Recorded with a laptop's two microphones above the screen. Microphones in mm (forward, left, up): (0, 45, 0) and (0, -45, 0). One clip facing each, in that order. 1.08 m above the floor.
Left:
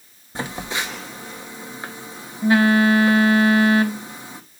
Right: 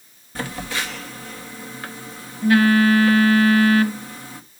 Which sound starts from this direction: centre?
A phone buzzing, at 0.3 s.